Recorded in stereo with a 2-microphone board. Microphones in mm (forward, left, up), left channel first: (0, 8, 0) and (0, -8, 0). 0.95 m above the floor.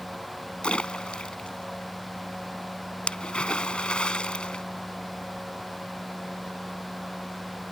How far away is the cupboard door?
No cupboard door in this recording.